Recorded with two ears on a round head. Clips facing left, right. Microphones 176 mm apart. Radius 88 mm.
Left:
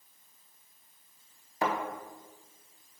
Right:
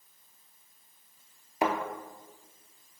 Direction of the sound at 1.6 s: 15° right (ahead or behind).